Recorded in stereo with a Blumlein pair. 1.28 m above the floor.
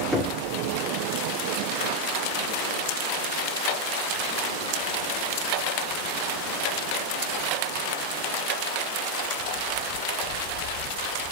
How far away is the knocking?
About 2 m.